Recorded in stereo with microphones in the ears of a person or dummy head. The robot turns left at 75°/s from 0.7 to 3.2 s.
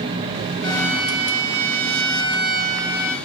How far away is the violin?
About 2.5 m.